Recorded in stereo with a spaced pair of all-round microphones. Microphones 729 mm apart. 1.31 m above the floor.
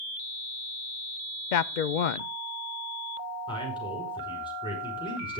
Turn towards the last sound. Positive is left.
turn(degrees=5)  # may be behind; listen again after turning